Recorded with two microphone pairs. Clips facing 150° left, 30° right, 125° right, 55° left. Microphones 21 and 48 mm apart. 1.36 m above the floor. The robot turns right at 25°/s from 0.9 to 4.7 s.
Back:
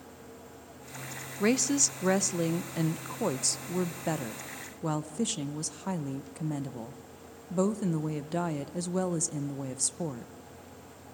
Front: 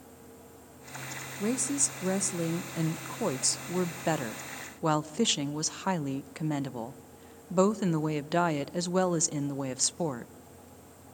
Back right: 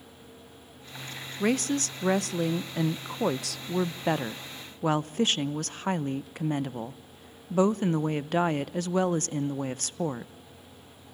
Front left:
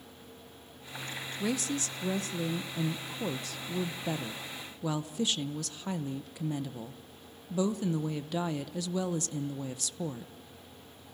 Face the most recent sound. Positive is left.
turn(degrees=-85)